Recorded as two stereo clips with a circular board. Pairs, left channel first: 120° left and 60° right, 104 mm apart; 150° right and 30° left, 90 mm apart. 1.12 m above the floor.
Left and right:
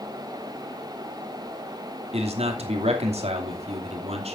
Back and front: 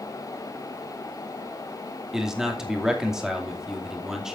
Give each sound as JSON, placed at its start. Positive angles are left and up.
{"t": 2.1, "sound": "a man speaking", "azimuth_deg": -55, "distance_m": 2.5}